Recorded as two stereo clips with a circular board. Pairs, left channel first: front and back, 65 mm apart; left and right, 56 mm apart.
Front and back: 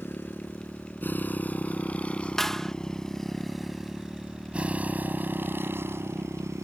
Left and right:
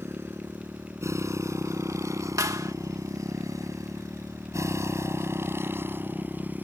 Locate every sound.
0.0 s a motorcycle: 50° right; by 6.6 s 145° right
2.4 s a clap: 85° right